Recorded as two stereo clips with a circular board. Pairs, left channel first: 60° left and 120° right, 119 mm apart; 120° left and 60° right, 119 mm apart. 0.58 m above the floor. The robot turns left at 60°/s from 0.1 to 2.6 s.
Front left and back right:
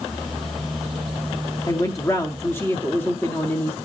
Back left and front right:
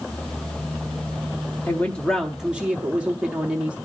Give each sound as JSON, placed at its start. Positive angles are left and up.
{"t": 1.7, "sound": "a woman speaking", "azimuth_deg": 65, "distance_m": 0.6}